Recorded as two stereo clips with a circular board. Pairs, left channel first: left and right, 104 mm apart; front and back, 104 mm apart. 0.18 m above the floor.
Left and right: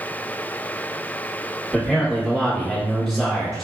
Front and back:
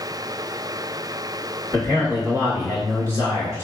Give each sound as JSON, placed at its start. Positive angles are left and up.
{"t": 1.7, "sound": "a man speaking", "azimuth_deg": -170, "distance_m": 1.6}